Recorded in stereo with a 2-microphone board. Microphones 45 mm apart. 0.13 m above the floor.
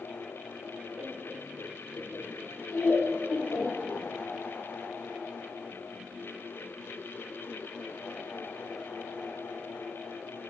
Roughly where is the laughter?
Left.